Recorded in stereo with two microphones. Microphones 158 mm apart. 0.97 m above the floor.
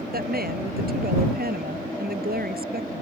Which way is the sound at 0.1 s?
80° right.